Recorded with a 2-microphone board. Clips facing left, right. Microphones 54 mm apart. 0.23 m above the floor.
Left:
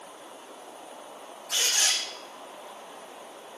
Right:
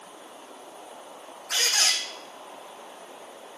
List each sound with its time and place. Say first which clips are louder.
1.5 s a squeak: right 2 dB; 65° right (ahead or behind), 4 m